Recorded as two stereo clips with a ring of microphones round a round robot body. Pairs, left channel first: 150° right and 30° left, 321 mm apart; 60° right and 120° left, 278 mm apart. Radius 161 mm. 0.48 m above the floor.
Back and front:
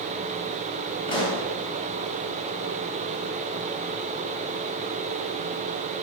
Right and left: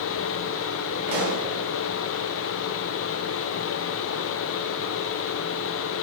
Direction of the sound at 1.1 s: 135° left.